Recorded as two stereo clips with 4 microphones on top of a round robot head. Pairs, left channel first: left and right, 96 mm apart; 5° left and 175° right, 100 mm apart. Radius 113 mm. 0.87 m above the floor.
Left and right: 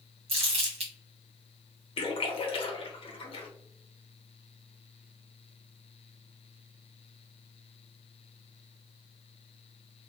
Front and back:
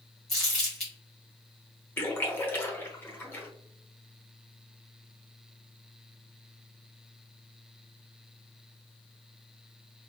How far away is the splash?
About 1.2 m.